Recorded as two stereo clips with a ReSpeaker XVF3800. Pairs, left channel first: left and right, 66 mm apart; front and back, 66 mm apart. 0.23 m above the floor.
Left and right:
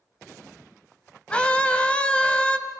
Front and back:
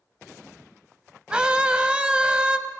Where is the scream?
135° left, 1.0 m.